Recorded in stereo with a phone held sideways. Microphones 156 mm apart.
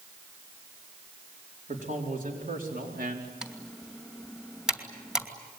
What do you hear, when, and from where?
1.7 s a man speaking: 55° right (ahead or behind), 4.5 m; by 3.3 s 80° right, 4 m
3.4 s typing on a keyboard: 5° right (ahead or behind), 2.5 m